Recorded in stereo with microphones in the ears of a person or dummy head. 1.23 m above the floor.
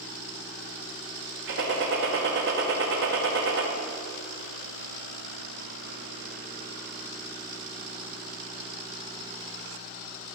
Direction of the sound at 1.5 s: 60° right (ahead or behind).